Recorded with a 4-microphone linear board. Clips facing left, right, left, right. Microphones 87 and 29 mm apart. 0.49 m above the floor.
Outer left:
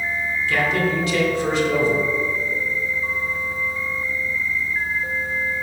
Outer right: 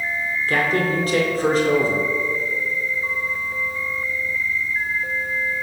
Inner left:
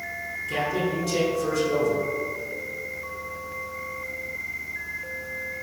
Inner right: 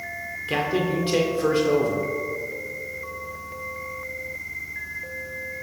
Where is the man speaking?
45° right (ahead or behind), 1.3 m.